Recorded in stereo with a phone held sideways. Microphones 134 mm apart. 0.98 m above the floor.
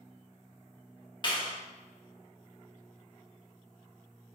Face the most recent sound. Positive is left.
turn(degrees=35)  # may be behind; listen again after turning